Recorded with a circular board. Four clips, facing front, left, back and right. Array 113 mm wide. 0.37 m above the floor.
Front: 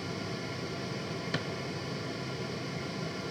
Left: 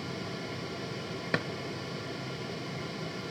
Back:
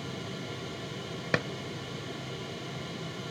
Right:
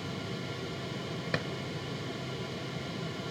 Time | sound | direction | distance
1.3 | a drawer | 170° left | 0.8 m